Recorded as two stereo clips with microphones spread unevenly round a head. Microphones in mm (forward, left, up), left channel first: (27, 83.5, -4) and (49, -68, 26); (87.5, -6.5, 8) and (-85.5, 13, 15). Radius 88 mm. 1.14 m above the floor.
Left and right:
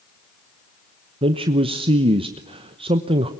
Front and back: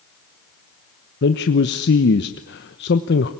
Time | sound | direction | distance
1.2 | a man speaking | 20° right | 1.0 m